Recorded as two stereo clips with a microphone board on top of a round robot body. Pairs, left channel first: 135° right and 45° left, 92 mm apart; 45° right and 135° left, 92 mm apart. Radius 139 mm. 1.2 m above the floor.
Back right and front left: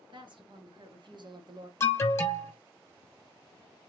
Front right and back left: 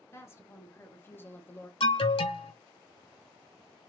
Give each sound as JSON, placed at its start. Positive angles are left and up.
{"t": 0.1, "sound": "a woman speaking", "azimuth_deg": 15, "distance_m": 1.6}
{"t": 1.8, "sound": "an alarm", "azimuth_deg": -70, "distance_m": 0.8}